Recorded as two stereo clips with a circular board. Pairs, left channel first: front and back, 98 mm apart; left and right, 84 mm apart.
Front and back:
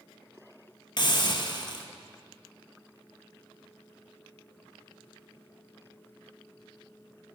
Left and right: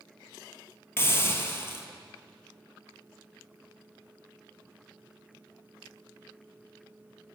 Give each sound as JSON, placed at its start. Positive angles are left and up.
{"t": 1.0, "sound": "a hiss", "azimuth_deg": 35, "distance_m": 0.9}